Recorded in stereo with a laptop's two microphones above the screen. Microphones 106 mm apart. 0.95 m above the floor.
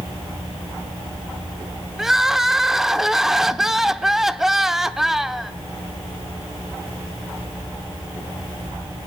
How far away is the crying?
About 0.6 m.